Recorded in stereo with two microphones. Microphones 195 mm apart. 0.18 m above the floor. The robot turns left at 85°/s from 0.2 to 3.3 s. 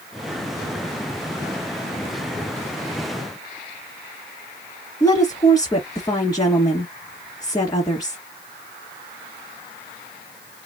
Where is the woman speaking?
20° left (ahead or behind), 2.5 m.